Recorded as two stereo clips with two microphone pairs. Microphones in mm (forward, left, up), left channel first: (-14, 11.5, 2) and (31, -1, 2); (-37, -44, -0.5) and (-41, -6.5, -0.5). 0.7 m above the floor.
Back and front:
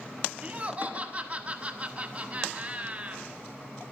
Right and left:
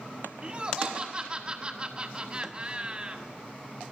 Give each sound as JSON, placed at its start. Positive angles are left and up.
{"t": 0.4, "sound": "laughter", "azimuth_deg": 35, "distance_m": 1.3}